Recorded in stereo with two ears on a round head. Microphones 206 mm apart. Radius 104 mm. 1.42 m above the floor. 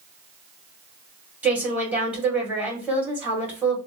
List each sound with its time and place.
1.4 s a woman speaking: 5° right (ahead or behind), 1.7 m